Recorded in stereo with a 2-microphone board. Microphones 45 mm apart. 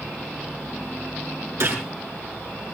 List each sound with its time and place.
1.6 s a gunshot: 65° right (ahead or behind), 5 m